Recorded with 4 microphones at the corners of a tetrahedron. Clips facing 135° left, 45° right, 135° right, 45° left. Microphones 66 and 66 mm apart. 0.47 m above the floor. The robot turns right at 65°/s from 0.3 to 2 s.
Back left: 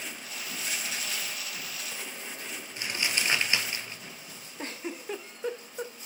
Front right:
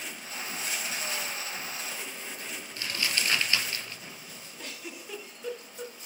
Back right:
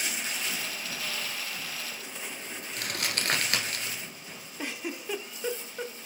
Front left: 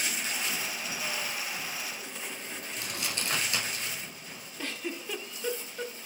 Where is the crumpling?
160° right, 1.3 m.